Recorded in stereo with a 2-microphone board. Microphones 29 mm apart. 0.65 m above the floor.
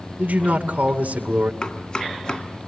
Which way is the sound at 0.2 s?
65° right (ahead or behind).